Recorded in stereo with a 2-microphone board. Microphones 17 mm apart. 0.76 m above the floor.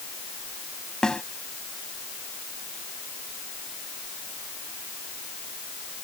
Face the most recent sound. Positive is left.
turn(degrees=50)  # may be behind; listen again after turning